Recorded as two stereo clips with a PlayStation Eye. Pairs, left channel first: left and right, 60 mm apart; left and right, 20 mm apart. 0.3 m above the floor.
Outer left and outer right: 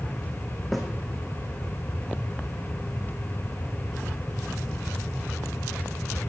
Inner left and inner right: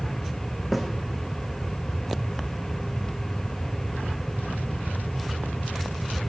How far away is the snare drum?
About 4.5 m.